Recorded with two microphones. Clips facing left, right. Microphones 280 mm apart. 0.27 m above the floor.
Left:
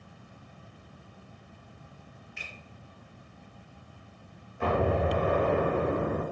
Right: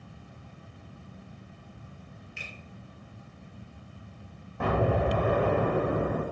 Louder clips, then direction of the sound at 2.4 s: Right 2 dB; 30° right (ahead or behind).